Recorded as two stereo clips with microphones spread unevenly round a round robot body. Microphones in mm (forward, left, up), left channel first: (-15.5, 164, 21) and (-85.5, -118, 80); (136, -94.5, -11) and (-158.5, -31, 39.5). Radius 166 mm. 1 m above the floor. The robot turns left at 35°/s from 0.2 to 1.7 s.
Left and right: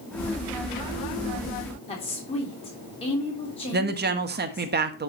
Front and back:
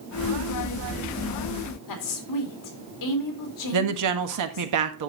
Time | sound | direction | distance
1.9 | a woman speaking | 5° left | 2.5 m
3.7 | a woman speaking | 165° right | 1.5 m